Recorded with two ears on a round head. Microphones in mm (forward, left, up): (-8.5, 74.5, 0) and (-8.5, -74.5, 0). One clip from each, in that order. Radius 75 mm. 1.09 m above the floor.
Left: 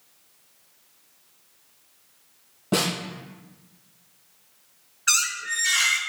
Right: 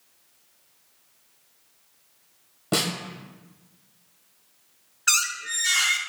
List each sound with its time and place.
2.7 s a snare drum: 50° right (ahead or behind), 1.7 m
5.1 s a squeak: 15° right (ahead or behind), 0.7 m